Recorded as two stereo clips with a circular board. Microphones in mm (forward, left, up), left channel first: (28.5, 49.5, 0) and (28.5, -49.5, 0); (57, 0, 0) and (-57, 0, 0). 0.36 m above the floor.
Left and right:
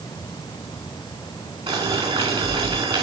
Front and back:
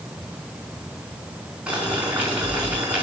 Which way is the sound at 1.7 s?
100° right.